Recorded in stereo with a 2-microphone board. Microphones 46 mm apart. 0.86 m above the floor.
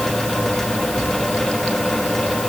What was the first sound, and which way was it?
Only background noise.